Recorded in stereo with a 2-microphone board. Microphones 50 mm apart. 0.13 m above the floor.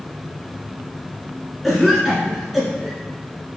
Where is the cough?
Centre (ahead or behind), 1.9 m.